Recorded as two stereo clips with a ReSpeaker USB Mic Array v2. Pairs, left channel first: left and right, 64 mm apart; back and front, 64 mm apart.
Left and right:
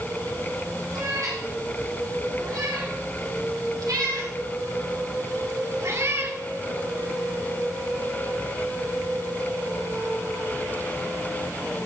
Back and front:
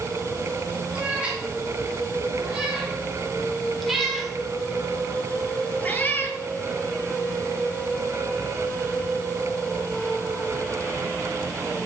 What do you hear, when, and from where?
0.9 s a cat meowing: 70° right, 4.5 m; by 6.4 s 135° right, 1.6 m